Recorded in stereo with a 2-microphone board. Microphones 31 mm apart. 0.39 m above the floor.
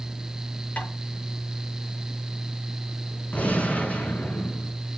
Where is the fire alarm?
I don't hear a fire alarm.